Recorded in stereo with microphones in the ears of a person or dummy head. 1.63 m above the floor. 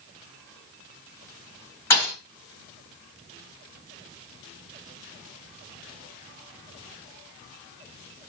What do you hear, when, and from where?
1.9 s a thud: 10° left (ahead or behind), 2.5 m